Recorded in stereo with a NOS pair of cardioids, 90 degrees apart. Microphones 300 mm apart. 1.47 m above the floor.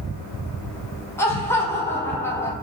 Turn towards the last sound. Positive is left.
turn(degrees=10)